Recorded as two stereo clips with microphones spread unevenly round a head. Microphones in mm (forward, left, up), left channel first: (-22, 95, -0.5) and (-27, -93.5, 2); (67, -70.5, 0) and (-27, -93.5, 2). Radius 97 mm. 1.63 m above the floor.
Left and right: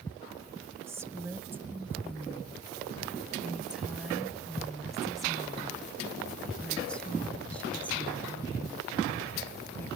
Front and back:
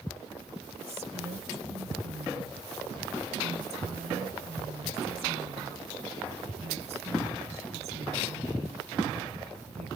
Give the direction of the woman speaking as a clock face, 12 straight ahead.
6 o'clock.